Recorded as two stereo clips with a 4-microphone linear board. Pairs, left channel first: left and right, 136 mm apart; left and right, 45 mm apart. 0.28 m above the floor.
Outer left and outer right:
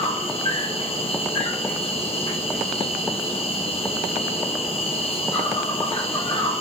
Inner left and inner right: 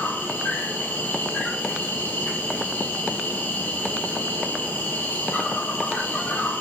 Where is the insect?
50° left (ahead or behind), 1.7 m.